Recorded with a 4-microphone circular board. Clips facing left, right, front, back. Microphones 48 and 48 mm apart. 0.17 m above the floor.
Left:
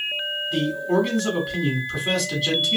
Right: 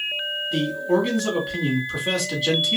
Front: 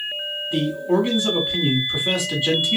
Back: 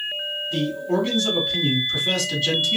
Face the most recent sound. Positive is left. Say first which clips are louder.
# even, front 3 dB
turn(degrees=-5)